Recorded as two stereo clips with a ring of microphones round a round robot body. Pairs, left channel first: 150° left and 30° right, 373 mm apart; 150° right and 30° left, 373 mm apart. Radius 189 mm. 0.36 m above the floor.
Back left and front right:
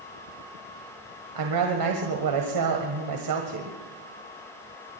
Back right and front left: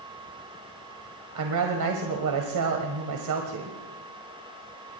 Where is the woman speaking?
5° right, 1.6 m.